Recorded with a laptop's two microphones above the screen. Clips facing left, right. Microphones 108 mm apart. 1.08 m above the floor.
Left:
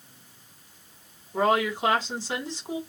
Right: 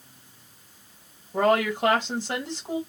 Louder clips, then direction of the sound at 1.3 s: Right 2 dB; 60° right (ahead or behind).